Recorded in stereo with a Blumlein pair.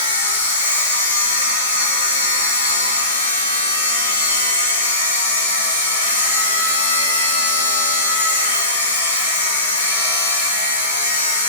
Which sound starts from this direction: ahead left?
A machine running, at 0.0 s.